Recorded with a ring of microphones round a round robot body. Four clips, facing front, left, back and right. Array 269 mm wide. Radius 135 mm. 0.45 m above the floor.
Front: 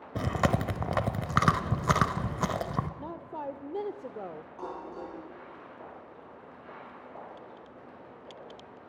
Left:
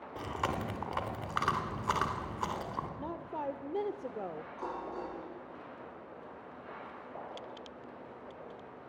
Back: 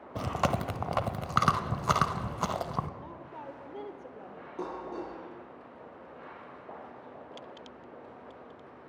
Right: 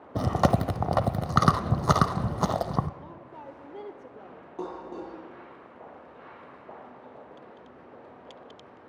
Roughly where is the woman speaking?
Ahead left.